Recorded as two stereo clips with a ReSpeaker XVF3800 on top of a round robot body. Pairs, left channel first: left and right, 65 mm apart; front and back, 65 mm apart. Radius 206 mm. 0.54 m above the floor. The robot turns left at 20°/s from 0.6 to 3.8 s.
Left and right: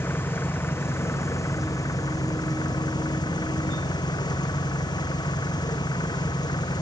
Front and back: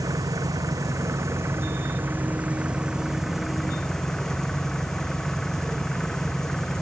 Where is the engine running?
150° left; by 6.8 s 85° left.